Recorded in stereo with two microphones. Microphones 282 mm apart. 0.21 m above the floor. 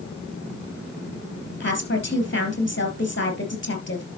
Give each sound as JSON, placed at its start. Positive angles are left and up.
{"t": 1.6, "sound": "a woman speaking", "side_deg": 40, "distance_m": 3.5}